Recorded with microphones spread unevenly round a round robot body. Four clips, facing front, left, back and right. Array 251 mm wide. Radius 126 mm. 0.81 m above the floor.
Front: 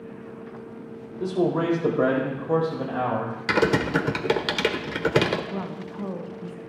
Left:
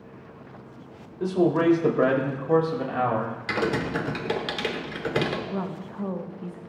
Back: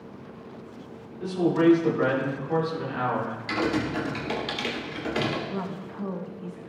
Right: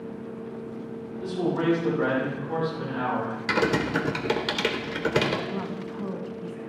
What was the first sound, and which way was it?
A man speaking, 45° left.